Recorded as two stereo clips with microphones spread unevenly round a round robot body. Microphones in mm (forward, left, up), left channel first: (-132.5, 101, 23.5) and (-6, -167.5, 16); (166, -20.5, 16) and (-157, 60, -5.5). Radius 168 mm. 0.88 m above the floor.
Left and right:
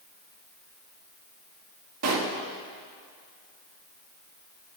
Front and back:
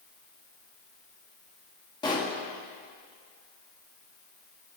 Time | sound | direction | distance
2.0 | a pop | 95° right | 1.5 m